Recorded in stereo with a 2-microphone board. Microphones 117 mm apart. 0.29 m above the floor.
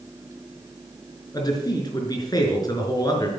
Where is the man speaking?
35° left (ahead or behind), 4.5 m.